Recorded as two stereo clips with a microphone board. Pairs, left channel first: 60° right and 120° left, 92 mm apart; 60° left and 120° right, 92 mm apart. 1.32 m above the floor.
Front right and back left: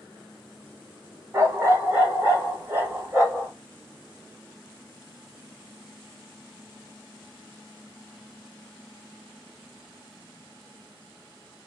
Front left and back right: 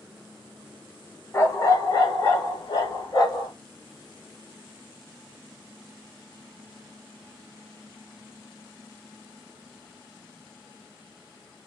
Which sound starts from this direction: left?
A dog barking, at 1.3 s.